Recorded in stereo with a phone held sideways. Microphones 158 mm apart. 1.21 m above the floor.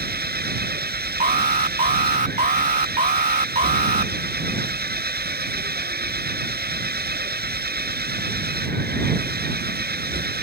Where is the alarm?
50° right (ahead or behind).